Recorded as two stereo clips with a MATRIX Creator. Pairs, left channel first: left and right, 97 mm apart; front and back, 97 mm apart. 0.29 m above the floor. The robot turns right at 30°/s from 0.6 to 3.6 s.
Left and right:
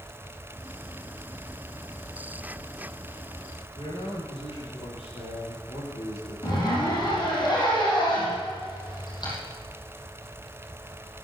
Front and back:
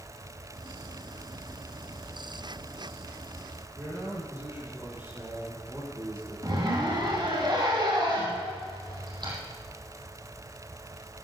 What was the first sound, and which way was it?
A man speaking, 110° left.